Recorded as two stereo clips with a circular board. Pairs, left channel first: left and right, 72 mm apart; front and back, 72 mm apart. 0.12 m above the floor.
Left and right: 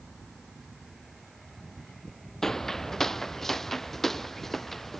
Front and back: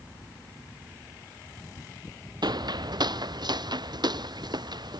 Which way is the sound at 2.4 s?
175° left.